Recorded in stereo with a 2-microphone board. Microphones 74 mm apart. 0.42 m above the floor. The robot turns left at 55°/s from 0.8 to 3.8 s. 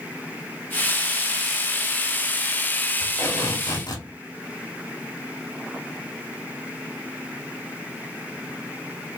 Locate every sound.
3.0 s tape being pulled: 130° left, 2.5 m; by 4.1 s 85° left, 2.5 m